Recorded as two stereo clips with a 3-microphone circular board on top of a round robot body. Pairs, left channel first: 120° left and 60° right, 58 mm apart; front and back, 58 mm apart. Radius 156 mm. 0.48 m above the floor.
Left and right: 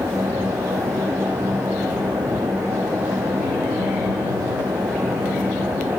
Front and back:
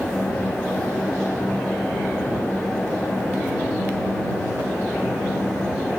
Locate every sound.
Only background noise.